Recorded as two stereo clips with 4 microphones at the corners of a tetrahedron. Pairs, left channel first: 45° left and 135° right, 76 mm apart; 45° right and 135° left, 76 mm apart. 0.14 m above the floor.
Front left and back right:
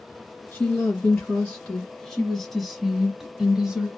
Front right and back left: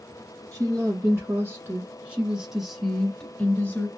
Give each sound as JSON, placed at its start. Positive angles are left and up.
{"t": 0.5, "sound": "a woman speaking", "azimuth_deg": 115, "distance_m": 1.7}